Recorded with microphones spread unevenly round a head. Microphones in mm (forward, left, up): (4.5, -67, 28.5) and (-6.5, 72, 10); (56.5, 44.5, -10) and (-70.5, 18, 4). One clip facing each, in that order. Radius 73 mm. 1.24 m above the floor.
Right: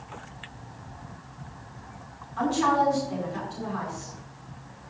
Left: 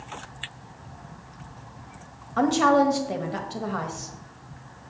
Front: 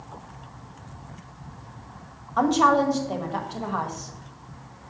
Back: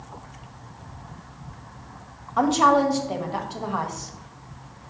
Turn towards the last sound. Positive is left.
turn(degrees=105)